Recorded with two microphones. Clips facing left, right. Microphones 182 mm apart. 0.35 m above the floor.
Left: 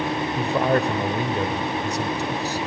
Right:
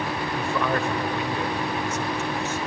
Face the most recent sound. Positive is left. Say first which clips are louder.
# left 5 dB
turn(degrees=35)  # may be behind; listen again after turning